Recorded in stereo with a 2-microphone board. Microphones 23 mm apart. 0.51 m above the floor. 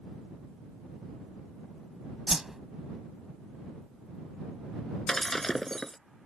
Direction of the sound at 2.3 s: 20° right (ahead or behind).